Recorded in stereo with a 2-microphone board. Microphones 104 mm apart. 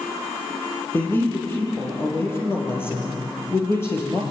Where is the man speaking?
20° left (ahead or behind), 7.5 m; by 4.2 s 25° left (ahead or behind), 5.5 m.